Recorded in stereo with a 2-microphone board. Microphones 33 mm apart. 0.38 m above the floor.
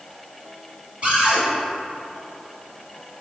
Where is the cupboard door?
45° right (ahead or behind), 1.9 m.